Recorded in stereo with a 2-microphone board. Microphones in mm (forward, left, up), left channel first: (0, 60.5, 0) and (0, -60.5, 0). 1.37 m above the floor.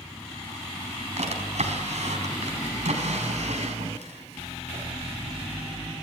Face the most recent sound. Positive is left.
turn(degrees=-75)  # may be behind; listen again after turning